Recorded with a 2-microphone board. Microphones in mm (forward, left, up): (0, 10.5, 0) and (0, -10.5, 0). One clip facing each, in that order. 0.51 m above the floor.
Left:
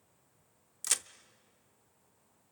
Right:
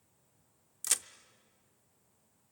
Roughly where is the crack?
Centre.